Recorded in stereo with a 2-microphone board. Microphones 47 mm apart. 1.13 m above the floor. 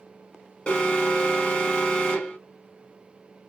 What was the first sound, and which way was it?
An alarm, 20° left (ahead or behind).